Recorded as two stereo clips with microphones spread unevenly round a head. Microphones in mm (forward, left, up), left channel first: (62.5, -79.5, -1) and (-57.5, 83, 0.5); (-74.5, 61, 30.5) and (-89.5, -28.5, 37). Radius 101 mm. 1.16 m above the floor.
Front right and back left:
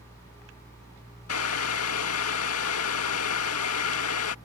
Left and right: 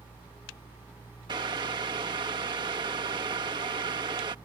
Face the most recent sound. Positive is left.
turn(degrees=-40)